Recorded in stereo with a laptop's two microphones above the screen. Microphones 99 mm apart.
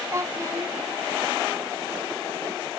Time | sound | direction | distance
0.1 | a child speaking | 30° right (ahead or behind) | ?